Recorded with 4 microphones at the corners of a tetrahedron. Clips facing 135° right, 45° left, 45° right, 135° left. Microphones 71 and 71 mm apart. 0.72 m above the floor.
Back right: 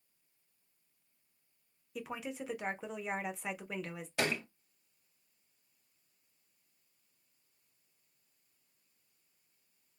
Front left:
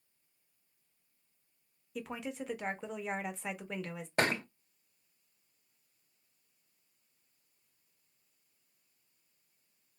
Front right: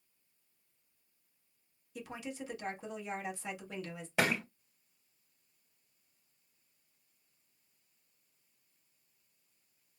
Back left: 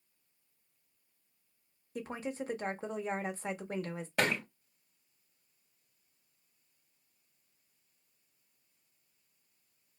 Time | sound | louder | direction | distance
1.9 | a woman speaking | front left 1 dB, back left 5 dB | 140° left | 0.7 m
4.2 | a thud | front left 4 dB, even | 35° left | 0.6 m